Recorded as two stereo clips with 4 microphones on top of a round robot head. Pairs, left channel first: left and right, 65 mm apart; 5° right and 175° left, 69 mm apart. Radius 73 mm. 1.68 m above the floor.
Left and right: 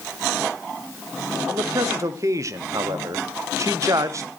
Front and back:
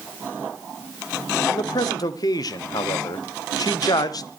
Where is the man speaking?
40° right, 1.1 m.